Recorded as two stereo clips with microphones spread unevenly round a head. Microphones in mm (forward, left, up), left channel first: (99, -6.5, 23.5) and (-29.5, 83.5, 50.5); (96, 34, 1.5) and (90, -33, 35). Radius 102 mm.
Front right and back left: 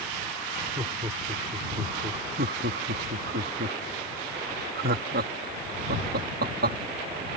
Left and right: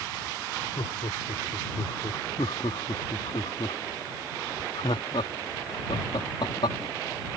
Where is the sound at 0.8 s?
80° left; by 3.4 s 125° left.